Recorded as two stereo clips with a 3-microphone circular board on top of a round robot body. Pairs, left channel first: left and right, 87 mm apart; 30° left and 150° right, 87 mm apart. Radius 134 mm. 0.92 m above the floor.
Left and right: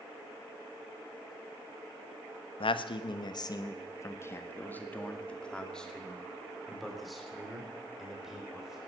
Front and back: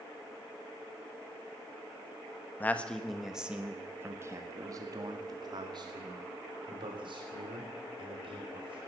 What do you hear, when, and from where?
2.6 s a man speaking: 100° left, 1.2 m; by 8.8 s 175° right, 4 m